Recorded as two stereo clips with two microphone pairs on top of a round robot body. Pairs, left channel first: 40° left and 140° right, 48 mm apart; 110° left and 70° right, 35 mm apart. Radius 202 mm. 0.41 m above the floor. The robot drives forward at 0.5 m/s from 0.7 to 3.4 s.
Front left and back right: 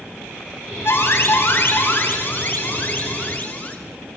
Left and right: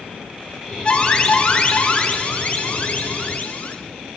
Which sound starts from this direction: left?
An alarm, at 0.8 s.